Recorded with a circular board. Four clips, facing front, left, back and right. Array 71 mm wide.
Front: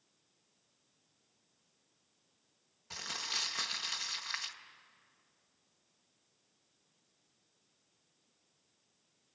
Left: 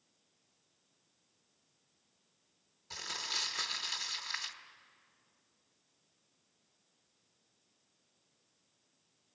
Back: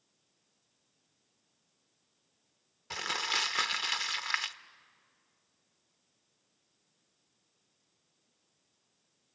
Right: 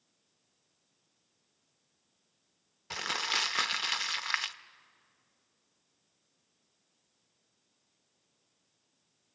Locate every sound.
2.9 s crumpling: 125° right, 0.7 m